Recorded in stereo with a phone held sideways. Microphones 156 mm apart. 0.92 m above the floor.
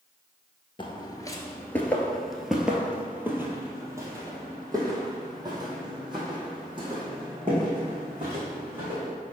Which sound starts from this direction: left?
Footsteps, at 0.8 s.